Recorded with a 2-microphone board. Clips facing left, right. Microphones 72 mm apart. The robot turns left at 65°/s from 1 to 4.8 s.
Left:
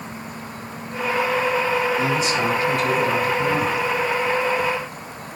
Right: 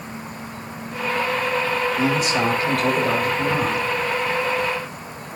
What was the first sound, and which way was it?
A man speaking, 40° right.